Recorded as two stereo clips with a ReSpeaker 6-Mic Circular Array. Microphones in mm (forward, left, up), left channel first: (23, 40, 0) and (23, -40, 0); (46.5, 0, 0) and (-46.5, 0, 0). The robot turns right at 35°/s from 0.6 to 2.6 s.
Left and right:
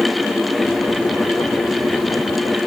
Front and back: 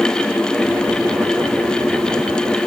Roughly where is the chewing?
I don't hear chewing.